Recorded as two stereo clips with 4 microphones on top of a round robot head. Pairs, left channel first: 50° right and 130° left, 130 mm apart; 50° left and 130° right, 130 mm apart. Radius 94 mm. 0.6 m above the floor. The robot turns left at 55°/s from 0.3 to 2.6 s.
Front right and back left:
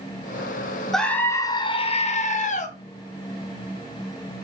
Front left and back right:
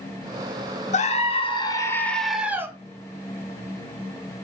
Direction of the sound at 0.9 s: 35° left.